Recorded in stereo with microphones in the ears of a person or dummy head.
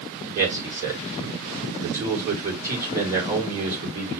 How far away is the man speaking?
About 3.5 m.